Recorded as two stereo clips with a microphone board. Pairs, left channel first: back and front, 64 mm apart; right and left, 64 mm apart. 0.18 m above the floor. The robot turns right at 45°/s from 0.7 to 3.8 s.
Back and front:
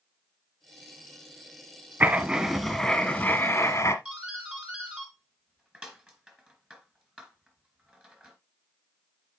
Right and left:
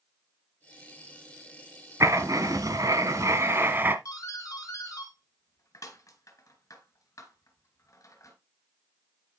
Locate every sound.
2.0 s writing: 55° left, 1.2 m; by 4.0 s 135° left, 1.2 m
4.0 s a doorbell: 75° right, 3 m